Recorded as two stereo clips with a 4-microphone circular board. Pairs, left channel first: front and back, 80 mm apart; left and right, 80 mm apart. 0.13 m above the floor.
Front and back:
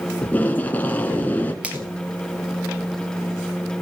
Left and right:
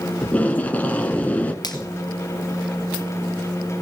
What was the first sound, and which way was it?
Tape being pulled, 40° left.